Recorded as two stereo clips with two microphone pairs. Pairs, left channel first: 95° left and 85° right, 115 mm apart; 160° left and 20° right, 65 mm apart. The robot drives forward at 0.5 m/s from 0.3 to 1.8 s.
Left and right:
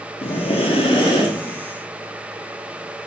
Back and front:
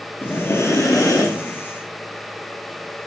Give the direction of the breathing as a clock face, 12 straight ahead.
8 o'clock.